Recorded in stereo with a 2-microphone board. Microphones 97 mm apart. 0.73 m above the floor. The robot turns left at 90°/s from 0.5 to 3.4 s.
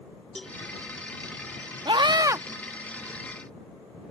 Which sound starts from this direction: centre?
A cowbell, at 0.3 s.